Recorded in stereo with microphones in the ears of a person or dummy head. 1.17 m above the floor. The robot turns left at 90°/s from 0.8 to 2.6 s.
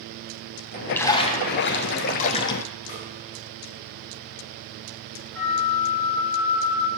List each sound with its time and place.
0.9 s a splash: 170° left, 0.7 m; by 2.6 s 20° left, 0.7 m
2.9 s a snare drum: 50° left (ahead or behind), 3.5 m
5.3 s a flute: 15° left (ahead or behind), 1.4 m